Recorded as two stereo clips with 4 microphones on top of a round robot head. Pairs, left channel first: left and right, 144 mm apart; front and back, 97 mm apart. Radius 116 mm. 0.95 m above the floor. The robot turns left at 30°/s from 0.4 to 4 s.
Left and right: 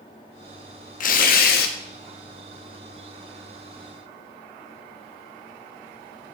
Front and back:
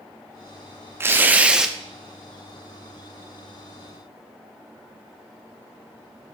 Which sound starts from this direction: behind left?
Tearing paper, at 1.0 s.